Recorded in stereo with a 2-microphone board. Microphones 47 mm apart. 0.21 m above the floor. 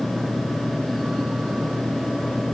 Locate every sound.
Only background noise.